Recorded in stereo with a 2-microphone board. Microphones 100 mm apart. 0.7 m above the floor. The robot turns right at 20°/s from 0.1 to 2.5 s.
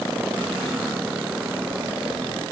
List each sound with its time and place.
Only background noise.